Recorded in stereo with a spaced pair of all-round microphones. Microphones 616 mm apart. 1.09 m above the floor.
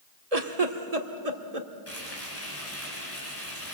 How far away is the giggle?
About 1.5 m.